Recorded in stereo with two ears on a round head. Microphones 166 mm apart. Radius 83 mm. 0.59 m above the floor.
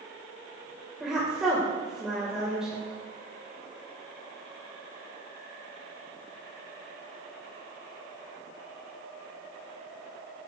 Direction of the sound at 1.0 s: 5° right (ahead or behind).